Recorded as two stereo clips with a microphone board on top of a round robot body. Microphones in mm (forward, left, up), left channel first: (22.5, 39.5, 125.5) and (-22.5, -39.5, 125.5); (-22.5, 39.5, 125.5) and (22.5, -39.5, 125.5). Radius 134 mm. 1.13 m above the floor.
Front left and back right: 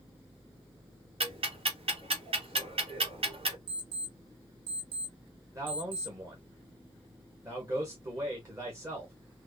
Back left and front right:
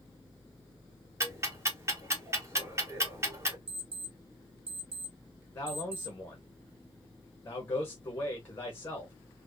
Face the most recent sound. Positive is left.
turn(degrees=-175)